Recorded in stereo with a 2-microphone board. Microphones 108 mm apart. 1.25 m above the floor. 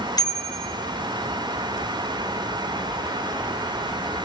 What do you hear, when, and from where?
0.2 s a bicycle bell: 40° left (ahead or behind), 3.5 m